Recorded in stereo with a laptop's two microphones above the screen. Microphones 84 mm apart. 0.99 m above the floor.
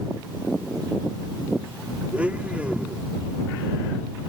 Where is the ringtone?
No ringtone in this recording.